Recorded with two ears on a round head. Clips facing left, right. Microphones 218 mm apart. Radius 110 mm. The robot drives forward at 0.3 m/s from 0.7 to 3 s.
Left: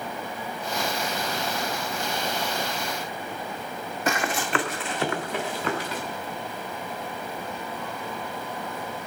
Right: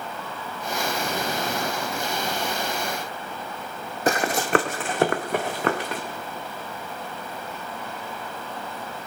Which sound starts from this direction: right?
Running footsteps, at 4.1 s.